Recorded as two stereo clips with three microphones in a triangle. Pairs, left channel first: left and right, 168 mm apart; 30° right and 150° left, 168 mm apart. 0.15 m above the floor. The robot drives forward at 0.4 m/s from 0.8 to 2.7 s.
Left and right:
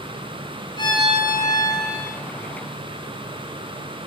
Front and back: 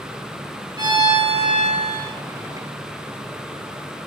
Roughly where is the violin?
Behind left.